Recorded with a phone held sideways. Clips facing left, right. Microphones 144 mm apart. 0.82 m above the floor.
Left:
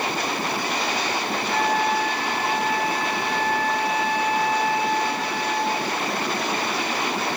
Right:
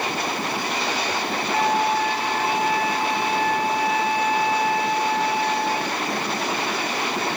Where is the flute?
15° right (ahead or behind), 0.9 m.